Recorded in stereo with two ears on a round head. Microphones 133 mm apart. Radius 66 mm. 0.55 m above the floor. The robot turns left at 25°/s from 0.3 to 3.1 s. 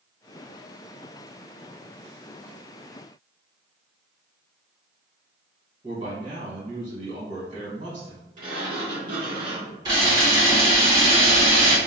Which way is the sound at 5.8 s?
40° right (ahead or behind).